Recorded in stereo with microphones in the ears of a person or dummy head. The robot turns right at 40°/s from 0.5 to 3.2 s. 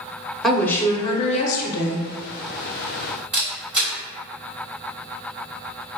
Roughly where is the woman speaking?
Ahead.